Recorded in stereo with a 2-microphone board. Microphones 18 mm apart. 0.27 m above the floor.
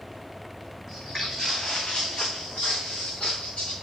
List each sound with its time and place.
0.9 s footsteps: 20° left (ahead or behind), 0.9 m; by 3.7 s 85° left, 1.9 m